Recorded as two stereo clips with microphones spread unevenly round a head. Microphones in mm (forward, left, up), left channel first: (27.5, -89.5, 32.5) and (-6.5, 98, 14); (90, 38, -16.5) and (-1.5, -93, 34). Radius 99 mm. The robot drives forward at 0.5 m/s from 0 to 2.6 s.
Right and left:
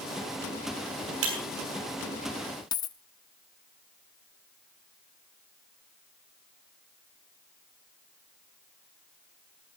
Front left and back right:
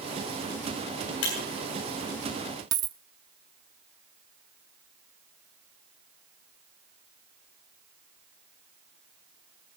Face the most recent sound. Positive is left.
turn(degrees=-130)